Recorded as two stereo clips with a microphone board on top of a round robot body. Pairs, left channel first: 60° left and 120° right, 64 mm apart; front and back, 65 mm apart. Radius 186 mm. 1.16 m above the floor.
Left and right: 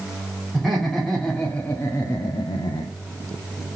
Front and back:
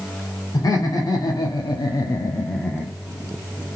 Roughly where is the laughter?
Ahead right.